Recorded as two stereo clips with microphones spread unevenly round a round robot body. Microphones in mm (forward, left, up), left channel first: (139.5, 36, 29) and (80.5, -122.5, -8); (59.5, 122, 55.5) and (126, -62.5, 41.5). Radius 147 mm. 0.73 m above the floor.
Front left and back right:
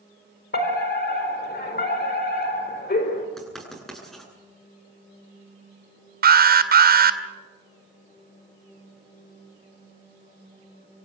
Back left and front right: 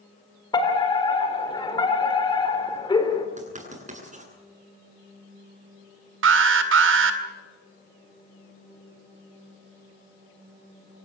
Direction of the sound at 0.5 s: 40° left.